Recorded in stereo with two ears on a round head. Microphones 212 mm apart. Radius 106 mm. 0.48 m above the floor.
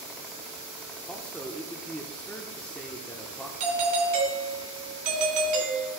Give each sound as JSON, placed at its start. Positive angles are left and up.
{"t": 1.1, "sound": "a man speaking", "side_deg": 5, "distance_m": 0.8}
{"t": 3.6, "sound": "a doorbell", "side_deg": -35, "distance_m": 2.5}